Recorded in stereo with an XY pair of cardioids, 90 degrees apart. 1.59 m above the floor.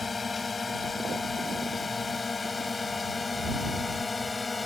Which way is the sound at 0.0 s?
40° left.